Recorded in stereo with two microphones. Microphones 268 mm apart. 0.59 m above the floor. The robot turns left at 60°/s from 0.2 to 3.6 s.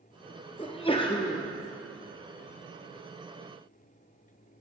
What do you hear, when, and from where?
0.6 s a sneeze: 20° left (ahead or behind), 0.6 m; by 1.4 s 15° left (ahead or behind), 0.6 m